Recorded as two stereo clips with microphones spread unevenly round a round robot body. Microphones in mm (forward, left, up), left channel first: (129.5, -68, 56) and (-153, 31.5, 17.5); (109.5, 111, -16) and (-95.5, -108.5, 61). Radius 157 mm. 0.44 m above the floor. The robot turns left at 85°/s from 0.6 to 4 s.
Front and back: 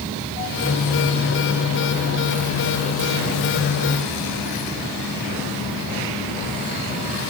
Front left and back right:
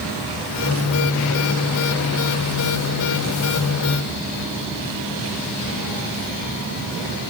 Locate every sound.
Only background noise.